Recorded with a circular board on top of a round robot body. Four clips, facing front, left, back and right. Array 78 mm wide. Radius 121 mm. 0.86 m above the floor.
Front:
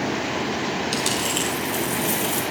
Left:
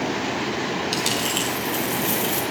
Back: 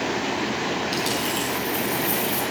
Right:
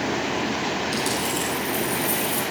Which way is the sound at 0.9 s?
60° left.